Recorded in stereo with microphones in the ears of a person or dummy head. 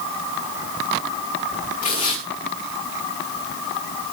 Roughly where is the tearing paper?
Left.